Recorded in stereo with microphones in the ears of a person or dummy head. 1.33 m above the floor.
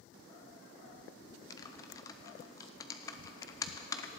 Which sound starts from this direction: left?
Typing on a keyboard, at 1.5 s.